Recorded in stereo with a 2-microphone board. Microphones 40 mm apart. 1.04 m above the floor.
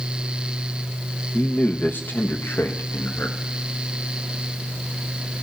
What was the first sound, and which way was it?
A man speaking, 40° left (ahead or behind).